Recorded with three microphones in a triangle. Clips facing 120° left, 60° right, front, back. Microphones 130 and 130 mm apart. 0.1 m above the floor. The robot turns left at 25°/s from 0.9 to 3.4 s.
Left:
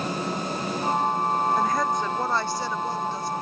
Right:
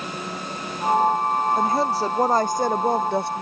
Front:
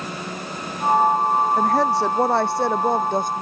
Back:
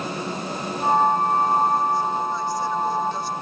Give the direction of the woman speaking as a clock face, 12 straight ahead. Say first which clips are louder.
Right 3 dB, front 2 dB; 12 o'clock.